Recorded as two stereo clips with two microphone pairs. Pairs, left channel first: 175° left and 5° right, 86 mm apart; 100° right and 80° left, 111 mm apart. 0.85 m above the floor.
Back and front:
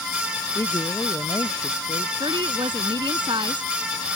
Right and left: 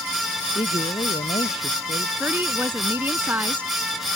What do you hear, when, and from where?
0.6 s a man speaking: 135° right; by 2.1 s 130° right
2.2 s a woman speaking: 10° left